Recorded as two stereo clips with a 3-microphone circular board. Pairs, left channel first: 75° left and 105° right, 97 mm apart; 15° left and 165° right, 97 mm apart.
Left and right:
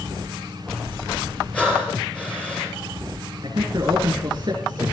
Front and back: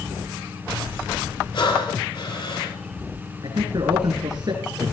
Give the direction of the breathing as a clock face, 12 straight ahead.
12 o'clock.